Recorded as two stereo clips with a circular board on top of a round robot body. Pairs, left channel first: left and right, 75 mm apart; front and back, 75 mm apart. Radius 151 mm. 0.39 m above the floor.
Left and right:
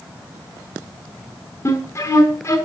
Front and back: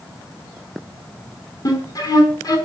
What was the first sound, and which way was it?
A flute, 35° left.